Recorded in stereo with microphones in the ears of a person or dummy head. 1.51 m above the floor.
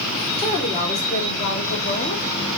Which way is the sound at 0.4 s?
30° left (ahead or behind).